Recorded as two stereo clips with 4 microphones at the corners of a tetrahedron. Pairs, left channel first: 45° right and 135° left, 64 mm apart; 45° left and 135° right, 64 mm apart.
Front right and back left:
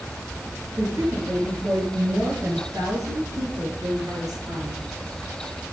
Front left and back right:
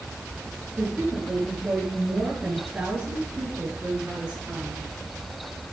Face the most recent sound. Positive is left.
turn(degrees=155)